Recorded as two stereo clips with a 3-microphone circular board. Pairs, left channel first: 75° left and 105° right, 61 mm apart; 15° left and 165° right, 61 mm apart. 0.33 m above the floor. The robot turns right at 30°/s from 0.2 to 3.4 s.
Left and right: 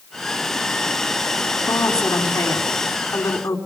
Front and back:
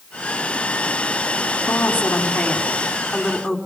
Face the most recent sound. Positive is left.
turn(degrees=110)